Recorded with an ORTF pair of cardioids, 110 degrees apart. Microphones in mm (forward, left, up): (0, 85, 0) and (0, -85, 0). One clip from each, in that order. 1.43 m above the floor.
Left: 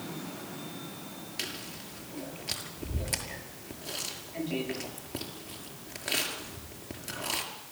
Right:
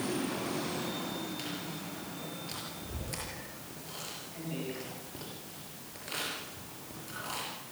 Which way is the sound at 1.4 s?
55° left.